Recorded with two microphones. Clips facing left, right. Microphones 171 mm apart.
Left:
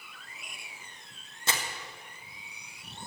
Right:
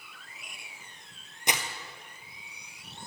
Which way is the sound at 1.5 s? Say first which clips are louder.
Right 2 dB; 15° right (ahead or behind).